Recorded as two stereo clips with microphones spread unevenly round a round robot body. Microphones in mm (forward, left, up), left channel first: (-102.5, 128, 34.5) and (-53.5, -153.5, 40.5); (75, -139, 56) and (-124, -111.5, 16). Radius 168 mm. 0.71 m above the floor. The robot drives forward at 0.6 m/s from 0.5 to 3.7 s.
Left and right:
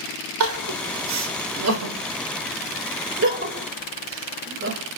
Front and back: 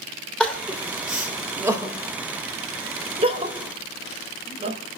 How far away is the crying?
About 3 m.